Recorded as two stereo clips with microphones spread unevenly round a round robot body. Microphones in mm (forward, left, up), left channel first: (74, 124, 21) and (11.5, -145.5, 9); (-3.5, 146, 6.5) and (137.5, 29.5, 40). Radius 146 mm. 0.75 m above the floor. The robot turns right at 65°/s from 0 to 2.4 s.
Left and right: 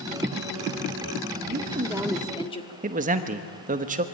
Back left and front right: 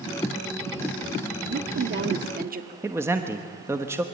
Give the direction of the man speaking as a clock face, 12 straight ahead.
4 o'clock.